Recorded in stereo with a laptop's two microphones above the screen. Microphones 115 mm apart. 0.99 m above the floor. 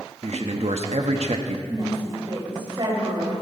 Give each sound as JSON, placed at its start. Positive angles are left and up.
{"t": 0.2, "sound": "a man speaking", "side_deg": -65, "distance_m": 1.4}
{"t": 1.7, "sound": "a woman speaking", "side_deg": -45, "distance_m": 5.5}